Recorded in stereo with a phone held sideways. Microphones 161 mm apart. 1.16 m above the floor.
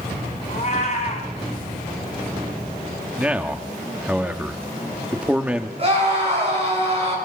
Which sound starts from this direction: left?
A cat meowing, at 0.5 s.